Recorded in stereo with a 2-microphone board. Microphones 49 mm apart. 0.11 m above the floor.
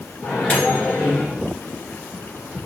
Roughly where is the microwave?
Left.